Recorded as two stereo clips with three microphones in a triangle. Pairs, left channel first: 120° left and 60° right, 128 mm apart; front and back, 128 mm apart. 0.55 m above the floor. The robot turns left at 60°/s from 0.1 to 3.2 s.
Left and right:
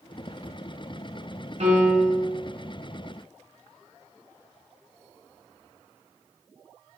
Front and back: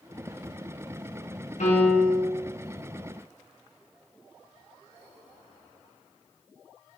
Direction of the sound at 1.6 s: 25° right.